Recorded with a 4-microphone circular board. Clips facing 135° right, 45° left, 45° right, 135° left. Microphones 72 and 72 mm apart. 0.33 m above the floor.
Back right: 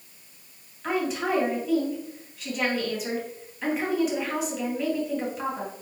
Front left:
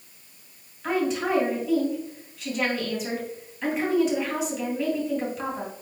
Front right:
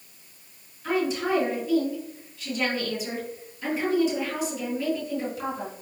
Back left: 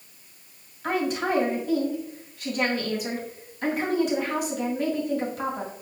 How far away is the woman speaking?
About 2.5 m.